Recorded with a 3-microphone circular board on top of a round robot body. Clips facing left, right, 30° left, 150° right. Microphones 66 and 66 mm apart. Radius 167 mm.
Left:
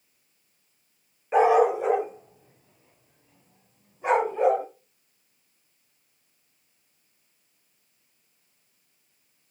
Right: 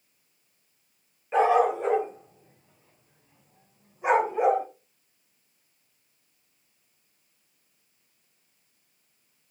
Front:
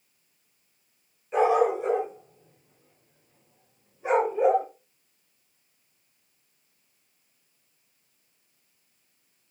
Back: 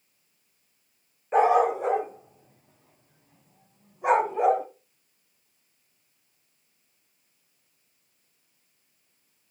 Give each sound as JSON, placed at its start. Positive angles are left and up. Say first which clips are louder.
{"t": 1.3, "sound": "a dog barking", "louder": "left 2 dB, back 1 dB", "azimuth_deg": 165, "distance_m": 3.0}